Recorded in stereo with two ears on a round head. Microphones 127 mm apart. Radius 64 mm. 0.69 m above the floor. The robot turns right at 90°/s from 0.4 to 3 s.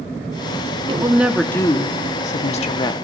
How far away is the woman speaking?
About 0.9 m.